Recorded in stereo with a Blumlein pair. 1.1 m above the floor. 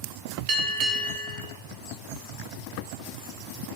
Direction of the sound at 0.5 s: 40° right.